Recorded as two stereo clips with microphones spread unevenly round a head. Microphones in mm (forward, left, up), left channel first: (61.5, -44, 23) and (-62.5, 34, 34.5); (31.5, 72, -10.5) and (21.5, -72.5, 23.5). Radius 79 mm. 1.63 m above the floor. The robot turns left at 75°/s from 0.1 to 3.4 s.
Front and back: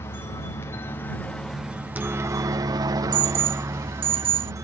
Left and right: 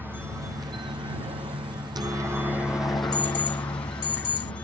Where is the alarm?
110° left; by 4.5 s 90° left.